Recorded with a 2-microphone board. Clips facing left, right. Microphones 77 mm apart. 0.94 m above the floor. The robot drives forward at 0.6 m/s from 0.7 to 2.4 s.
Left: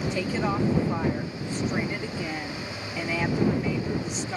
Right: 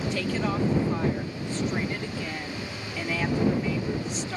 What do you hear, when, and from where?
0.1 s a woman speaking: 15° left (ahead or behind); by 4.4 s 10° left (ahead or behind)